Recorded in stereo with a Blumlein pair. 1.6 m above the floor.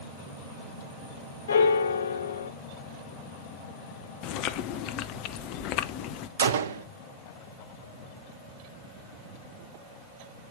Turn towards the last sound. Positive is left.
turn(degrees=-65)